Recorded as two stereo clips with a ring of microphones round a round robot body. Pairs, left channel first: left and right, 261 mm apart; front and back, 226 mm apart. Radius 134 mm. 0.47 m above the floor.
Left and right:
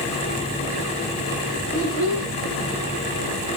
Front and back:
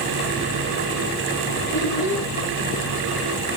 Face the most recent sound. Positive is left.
turn(degrees=-55)